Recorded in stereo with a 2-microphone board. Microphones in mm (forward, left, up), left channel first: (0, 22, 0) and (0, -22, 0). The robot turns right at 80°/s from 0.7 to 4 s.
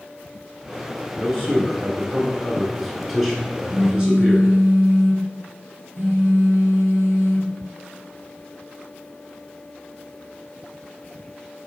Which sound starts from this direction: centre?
A man speaking, at 1.2 s.